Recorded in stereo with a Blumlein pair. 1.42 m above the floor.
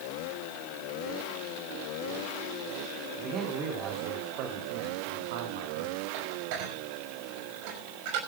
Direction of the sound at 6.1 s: 45° right.